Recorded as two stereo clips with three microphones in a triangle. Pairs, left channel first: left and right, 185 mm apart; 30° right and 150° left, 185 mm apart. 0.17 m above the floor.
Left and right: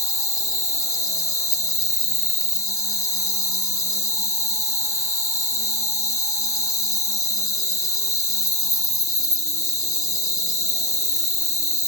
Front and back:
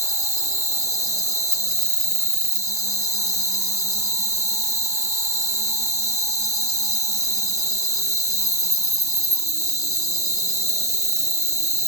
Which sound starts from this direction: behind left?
An insect, at 0.0 s.